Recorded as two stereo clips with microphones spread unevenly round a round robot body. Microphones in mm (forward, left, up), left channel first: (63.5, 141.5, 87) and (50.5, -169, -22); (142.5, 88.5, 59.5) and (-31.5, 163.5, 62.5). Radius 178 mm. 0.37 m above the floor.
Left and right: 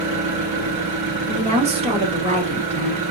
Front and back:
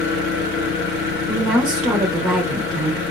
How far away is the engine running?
About 3.5 m.